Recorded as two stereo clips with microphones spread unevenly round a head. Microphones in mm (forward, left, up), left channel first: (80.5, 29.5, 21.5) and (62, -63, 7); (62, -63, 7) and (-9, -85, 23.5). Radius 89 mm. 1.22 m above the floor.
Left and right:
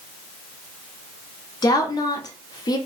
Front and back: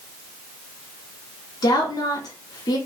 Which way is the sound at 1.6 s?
30° left.